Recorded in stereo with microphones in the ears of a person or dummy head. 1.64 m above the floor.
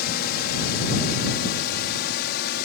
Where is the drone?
55° left (ahead or behind); by 2.6 s 60° left (ahead or behind).